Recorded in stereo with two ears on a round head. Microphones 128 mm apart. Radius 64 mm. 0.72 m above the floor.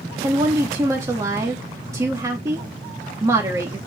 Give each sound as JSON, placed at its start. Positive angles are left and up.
{"t": 0.2, "sound": "a woman speaking", "side_deg": -25, "distance_m": 1.2}